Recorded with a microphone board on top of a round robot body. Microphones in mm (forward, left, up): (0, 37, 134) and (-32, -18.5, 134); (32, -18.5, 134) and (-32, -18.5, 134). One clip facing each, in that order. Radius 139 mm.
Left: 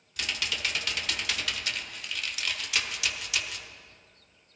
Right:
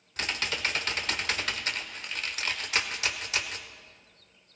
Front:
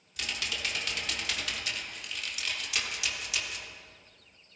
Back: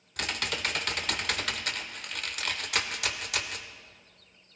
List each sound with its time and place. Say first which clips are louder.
0.2 s typing on a keyboard: right 2 dB, back 3 dB; 165° right, 1.9 m